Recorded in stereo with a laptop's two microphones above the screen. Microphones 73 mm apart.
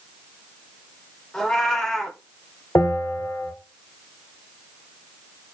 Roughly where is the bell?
Left.